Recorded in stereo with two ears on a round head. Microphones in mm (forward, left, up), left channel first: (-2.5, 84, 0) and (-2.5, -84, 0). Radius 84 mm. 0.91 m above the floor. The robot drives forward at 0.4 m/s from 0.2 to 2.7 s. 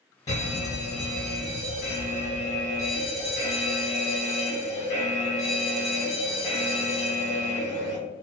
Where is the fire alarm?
20° left (ahead or behind), 1.7 m; by 8.0 s 15° left (ahead or behind), 2 m.